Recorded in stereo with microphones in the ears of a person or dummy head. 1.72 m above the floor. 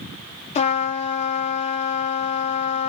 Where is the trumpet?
30° left (ahead or behind), 0.6 m.